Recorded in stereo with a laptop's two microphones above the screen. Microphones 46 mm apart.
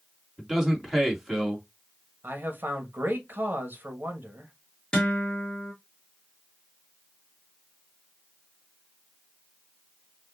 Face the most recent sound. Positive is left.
turn(degrees=15)  # may be behind; listen again after turning